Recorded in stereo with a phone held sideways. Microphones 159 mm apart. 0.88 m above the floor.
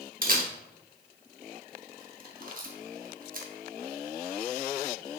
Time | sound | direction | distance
0.2 | a camera shutter | 55° right (ahead or behind) | 0.9 m